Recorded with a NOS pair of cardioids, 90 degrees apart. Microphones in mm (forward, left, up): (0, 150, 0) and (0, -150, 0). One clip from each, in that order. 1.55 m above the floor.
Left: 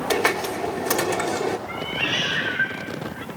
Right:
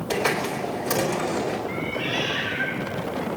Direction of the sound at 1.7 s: 65° left.